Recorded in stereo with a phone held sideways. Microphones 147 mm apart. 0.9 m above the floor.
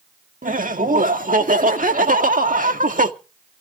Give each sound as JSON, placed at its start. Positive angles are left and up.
{"t": 0.4, "sound": "laughter", "side_deg": -70, "distance_m": 1.9}